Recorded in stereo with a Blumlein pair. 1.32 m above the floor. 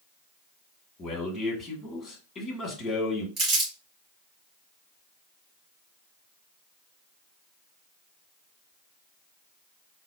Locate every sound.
1.0 s a man speaking: 20° left, 1.6 m
3.4 s crumpling: 25° right, 2.5 m